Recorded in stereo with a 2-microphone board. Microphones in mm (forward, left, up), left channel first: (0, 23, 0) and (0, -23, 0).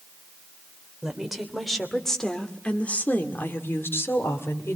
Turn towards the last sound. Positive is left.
turn(degrees=70)  # may be behind; listen again after turning